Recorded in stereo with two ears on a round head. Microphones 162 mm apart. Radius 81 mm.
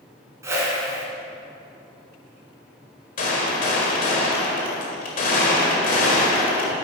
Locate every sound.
0.4 s a whoosh: 15° right (ahead or behind), 2 m
3.2 s a gunshot: 50° left (ahead or behind), 1.8 m